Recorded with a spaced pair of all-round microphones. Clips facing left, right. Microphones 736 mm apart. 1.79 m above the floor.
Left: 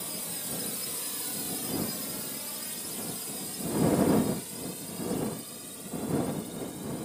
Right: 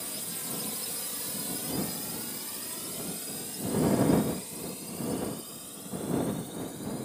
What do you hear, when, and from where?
0.0 s a drone: 50° right (ahead or behind); by 7.0 s 55° left (ahead or behind)